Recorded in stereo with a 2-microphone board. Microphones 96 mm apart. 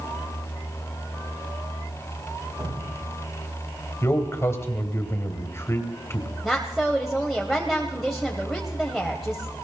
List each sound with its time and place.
2.6 s dripping: 50° right (ahead or behind), 7.5 m
4.0 s a man speaking: 30° left (ahead or behind), 2.5 m
6.4 s a woman speaking: centre (ahead or behind), 1.8 m